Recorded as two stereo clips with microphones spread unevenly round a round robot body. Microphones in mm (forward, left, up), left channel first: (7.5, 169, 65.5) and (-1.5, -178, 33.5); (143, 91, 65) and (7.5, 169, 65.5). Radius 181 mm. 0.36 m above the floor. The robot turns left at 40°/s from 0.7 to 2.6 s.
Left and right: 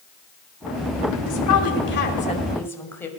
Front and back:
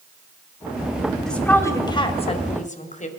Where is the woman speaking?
55° left, 2.5 m; by 3.1 s 5° left, 2.5 m.